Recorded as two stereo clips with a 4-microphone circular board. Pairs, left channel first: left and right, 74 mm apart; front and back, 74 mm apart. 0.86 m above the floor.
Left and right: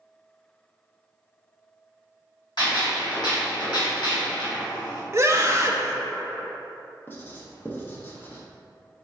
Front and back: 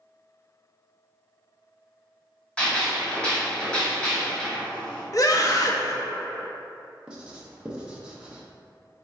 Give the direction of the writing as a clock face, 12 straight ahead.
8 o'clock.